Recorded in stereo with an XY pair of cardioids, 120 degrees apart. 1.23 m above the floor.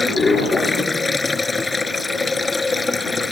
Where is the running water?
15° left.